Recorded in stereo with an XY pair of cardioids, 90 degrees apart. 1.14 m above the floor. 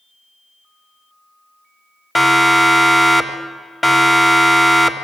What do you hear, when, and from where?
2.1 s a siren: 10° left, 3 m